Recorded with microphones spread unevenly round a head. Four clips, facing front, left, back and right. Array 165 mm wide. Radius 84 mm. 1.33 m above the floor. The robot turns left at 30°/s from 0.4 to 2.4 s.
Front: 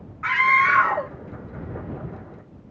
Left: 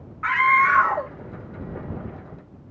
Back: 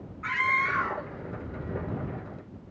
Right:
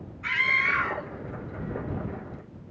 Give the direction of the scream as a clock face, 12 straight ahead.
10 o'clock.